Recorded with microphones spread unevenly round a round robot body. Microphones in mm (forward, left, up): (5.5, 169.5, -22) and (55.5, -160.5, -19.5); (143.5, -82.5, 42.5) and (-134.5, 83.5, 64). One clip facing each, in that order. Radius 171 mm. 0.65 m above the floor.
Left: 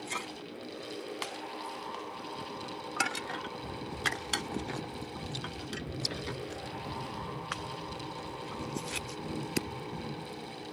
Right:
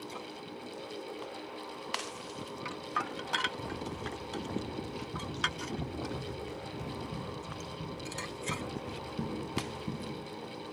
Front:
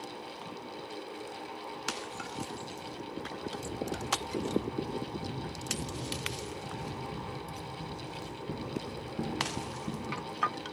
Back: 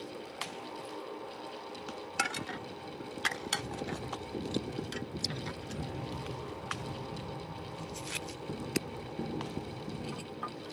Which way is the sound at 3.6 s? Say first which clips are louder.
Right 1 dB, front 3 dB; 135° right.